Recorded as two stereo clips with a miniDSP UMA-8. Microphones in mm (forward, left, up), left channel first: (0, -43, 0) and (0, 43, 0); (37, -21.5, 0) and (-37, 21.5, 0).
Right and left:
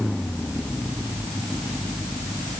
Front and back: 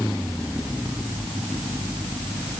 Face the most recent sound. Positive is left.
No sound to turn to.